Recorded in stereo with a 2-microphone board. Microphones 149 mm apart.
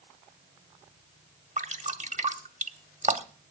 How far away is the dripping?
About 0.9 m.